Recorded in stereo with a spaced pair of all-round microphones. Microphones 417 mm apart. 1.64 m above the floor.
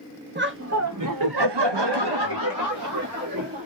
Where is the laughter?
25° right (ahead or behind), 0.8 m; by 3.7 s 35° right (ahead or behind), 1.3 m.